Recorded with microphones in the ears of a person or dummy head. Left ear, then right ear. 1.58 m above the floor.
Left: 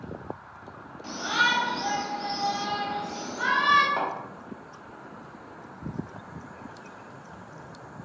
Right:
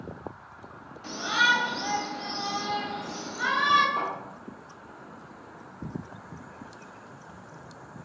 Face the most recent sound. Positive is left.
turn(degrees=50)  # may be behind; listen again after turning